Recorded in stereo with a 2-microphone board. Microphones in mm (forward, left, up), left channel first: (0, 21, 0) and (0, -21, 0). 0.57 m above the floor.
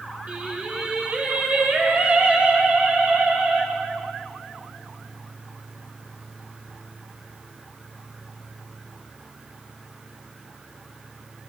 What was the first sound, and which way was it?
Singing, 35° right (ahead or behind).